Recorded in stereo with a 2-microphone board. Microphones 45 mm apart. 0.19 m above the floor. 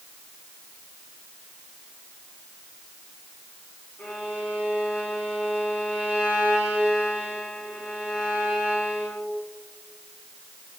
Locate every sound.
4.0 s a violin: 40° left (ahead or behind), 7 m